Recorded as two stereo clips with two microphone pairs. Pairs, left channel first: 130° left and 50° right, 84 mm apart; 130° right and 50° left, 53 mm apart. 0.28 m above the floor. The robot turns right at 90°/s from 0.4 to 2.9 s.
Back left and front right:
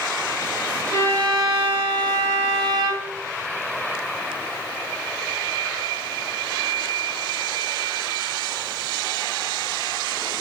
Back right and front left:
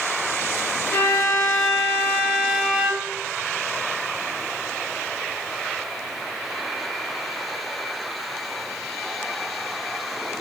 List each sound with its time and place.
0.9 s a violin: 175° left, 0.6 m; by 3.1 s 5° right, 0.6 m